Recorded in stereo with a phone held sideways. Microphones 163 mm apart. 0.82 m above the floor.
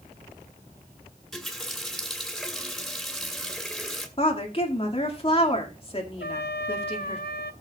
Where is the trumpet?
75° left (ahead or behind), 0.8 m.